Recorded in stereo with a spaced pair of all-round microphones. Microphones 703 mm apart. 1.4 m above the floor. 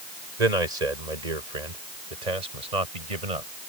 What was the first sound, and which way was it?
A man speaking, 85° right.